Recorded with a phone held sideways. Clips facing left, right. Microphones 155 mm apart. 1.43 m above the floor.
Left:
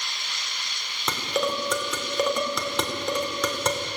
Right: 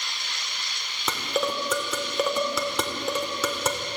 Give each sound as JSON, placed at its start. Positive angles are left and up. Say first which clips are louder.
{"t": 1.1, "sound": "dishes clattering", "louder": "left 1 dB", "side_deg": -5, "distance_m": 3.0}